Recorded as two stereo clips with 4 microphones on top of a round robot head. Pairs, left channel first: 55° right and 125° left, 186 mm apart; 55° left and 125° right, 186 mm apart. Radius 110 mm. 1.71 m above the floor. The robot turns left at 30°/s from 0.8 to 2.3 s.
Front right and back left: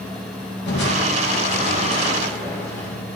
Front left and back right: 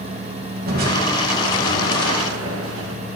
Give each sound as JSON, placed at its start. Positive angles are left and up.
{"t": 0.7, "sound": "crushing", "azimuth_deg": -85, "distance_m": 2.5}